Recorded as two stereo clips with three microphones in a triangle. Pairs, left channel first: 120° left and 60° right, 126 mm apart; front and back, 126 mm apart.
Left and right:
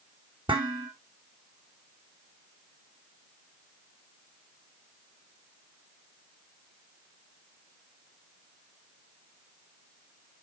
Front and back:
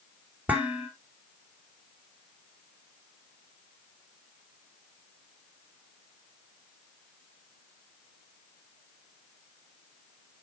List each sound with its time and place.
0.5 s dishes clattering: 105° right, 2 m